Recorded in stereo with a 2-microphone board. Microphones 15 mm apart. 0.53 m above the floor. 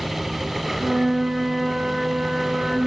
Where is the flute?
60° right (ahead or behind), 0.6 m.